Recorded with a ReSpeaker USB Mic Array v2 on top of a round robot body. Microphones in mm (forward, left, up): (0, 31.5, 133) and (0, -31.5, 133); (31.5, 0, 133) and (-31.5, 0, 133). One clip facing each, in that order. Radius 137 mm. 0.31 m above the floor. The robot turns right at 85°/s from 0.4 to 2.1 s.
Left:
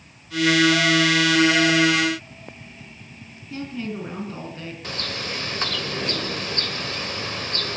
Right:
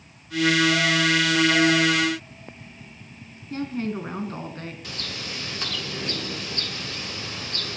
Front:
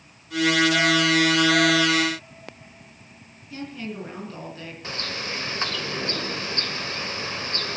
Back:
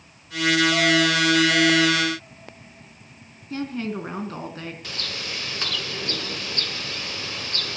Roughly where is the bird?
Ahead left.